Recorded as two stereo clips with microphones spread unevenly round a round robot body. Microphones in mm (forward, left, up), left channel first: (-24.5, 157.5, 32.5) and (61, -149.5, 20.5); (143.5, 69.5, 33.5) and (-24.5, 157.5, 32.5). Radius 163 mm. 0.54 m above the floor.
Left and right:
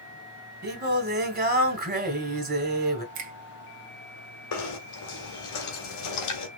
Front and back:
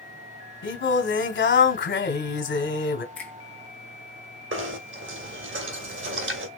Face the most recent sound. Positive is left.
turn(degrees=145)